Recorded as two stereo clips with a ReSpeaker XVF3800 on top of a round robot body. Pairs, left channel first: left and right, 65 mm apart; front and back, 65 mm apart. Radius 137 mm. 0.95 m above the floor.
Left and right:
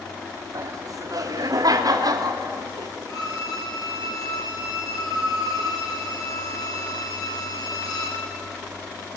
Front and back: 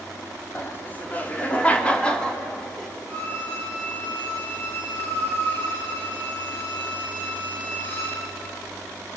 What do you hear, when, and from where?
0.6 s laughter: 60° right, 3.5 m; by 2.9 s 85° right, 3 m
3.1 s a violin: 60° left, 7 m